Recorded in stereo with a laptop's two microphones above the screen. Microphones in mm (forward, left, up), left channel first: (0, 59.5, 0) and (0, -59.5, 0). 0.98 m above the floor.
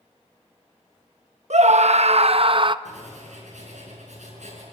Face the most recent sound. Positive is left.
turn(degrees=-85)